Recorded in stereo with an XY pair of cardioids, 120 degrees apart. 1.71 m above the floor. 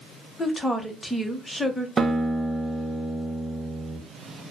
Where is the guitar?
25° right, 0.6 m.